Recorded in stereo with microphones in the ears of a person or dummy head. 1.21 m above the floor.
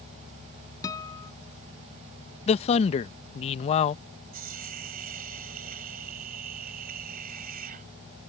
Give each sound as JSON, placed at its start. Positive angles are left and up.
{"t": 0.8, "sound": "a guitar", "side_deg": 20}
{"t": 2.5, "sound": "a man speaking", "side_deg": 35}
{"t": 4.3, "sound": "a hiss", "side_deg": -50}